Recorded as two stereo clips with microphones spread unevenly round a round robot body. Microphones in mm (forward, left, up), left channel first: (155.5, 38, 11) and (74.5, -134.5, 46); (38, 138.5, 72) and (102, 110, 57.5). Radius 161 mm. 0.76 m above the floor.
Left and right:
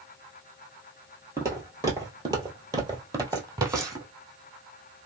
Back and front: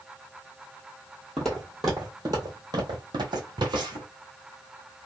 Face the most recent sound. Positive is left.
turn(degrees=-50)